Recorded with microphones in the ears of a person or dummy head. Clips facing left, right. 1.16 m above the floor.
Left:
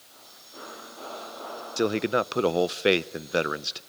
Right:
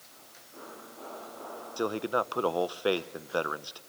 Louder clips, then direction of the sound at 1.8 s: Left 5 dB; 25° left (ahead or behind).